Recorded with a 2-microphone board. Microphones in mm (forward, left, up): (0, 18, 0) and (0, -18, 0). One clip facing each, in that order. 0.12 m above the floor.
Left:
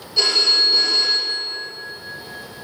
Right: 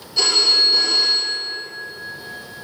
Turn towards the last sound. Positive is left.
turn(degrees=5)  # may be behind; listen again after turning